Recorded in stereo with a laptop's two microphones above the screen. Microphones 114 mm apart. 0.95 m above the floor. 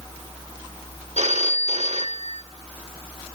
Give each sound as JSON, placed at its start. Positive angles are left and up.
{"t": 1.2, "sound": "a phone ringing", "side_deg": -80, "distance_m": 1.1}